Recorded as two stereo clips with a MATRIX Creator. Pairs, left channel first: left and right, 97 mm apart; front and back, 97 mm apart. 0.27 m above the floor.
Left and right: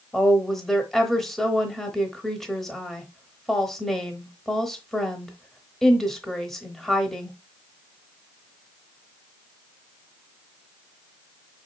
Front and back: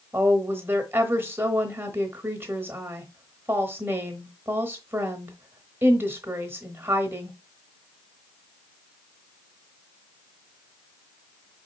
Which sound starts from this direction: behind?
A woman speaking, at 0.1 s.